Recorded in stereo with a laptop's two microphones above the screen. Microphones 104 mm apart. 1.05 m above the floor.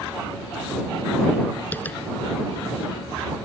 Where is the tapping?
15° left (ahead or behind).